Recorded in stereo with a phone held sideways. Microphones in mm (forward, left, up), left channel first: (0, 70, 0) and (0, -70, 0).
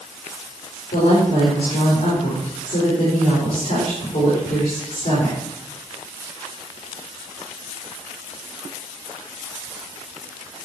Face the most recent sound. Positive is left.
turn(degrees=75)  # may be behind; listen again after turning